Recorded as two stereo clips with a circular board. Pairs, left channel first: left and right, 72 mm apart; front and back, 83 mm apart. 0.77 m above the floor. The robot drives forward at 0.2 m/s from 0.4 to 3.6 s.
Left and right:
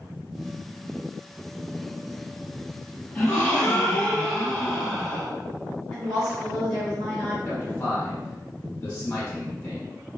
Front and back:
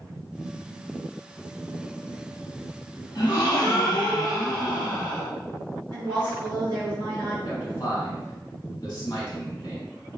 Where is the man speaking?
40° left, 1.4 m.